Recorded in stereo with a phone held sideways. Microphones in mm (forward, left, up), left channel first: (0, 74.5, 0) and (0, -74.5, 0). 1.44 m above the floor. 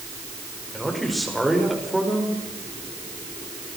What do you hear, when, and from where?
0.7 s a man speaking: centre (ahead or behind), 6 m